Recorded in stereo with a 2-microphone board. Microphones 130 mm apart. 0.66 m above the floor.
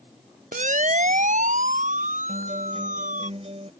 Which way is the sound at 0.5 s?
80° right.